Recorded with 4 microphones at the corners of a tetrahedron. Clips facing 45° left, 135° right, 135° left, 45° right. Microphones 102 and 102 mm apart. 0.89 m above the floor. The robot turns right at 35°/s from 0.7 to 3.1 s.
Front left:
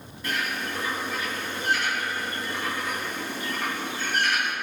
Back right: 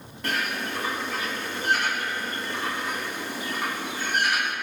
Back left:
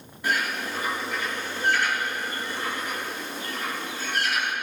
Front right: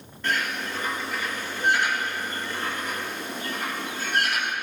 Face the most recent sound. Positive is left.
turn(degrees=-65)